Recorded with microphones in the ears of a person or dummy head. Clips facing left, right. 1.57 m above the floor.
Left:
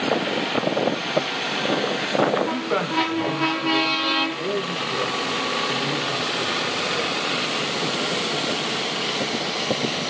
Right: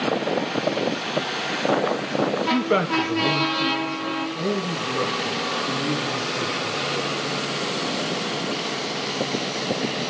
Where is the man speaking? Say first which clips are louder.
Right 3 dB; 30° right (ahead or behind), 1.2 m; by 7.1 s 85° right, 5 m.